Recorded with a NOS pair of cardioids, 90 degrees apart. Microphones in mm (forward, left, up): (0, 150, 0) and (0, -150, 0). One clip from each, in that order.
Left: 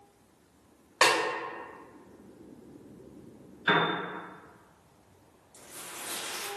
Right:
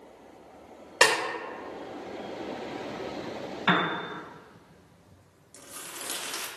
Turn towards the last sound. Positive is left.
turn(degrees=-60)